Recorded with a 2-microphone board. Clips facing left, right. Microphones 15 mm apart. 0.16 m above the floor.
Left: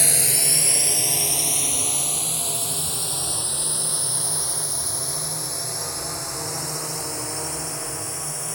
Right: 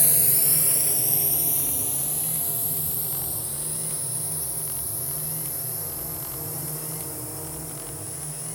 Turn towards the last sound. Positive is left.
turn(degrees=50)  # may be behind; listen again after turning